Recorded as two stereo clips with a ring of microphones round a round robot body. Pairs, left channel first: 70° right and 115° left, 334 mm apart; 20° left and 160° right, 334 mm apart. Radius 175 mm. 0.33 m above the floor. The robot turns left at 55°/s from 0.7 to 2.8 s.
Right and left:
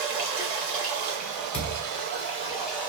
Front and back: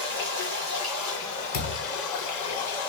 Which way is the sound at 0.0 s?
135° left.